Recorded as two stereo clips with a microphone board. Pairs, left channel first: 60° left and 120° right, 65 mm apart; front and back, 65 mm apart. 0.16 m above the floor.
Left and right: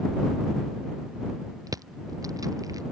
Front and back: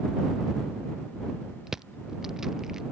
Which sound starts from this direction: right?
Crushing, at 1.7 s.